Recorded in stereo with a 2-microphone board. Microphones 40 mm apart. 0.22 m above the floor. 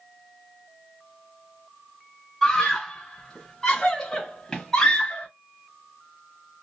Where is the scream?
5° left (ahead or behind), 1.1 m; by 5.3 s 15° left (ahead or behind), 1.4 m.